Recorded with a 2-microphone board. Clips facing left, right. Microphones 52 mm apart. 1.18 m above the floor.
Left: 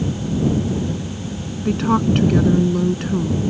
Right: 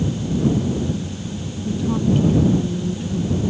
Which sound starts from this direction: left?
A woman speaking, at 1.6 s.